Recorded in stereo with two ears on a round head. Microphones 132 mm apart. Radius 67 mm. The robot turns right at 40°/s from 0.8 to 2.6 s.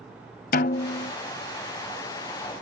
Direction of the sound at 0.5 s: 65° left (ahead or behind).